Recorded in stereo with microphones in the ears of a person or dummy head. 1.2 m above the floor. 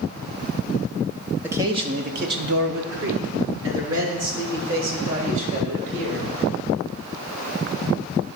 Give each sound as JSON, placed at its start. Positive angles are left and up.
{"t": 1.4, "sound": "a man speaking", "side_deg": -5, "distance_m": 0.5}